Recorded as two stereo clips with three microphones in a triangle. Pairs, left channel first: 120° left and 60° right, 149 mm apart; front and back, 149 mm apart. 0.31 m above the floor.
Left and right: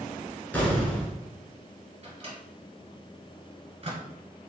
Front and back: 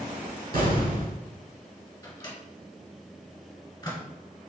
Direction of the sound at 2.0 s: 50° right.